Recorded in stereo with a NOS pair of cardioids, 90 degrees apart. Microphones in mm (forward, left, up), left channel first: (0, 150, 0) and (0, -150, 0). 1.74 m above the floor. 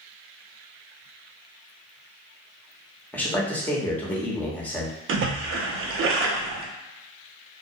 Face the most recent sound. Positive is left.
turn(degrees=-50)